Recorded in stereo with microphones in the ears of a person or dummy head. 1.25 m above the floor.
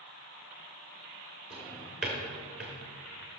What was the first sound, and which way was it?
A drawer, 5° right (ahead or behind).